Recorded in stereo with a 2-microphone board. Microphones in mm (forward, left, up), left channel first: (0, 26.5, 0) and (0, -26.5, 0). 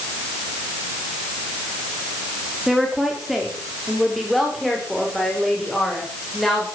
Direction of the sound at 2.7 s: 5° right (ahead or behind).